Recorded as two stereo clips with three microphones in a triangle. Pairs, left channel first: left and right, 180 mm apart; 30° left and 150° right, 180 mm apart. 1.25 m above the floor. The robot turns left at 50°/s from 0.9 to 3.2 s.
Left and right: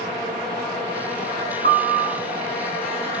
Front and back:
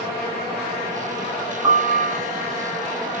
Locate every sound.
1.6 s a piano: 60° right, 2 m; by 2.2 s 85° right, 2 m